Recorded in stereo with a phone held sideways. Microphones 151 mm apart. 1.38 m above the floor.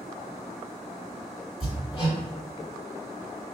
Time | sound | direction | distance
1.6 | hammering | 45° left (ahead or behind) | 1.9 m